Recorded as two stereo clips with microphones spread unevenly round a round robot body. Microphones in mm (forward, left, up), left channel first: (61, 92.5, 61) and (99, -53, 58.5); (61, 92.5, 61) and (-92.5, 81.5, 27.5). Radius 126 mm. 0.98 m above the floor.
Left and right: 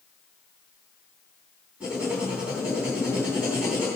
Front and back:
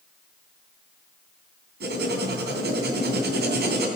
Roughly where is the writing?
Behind.